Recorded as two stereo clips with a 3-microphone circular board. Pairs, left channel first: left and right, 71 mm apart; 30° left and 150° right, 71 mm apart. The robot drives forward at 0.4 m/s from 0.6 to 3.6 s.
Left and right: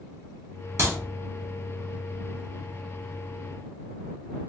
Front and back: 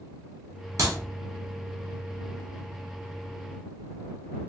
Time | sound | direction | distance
0.8 | a clap | 130° right | 0.9 m